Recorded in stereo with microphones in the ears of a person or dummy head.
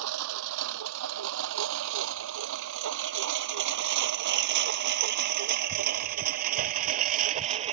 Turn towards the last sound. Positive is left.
turn(degrees=-35)  # may be behind; listen again after turning